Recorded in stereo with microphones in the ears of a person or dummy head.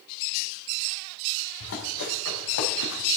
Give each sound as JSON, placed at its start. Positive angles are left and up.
{"t": 1.6, "sound": "running footsteps", "side_deg": 65, "distance_m": 4.5}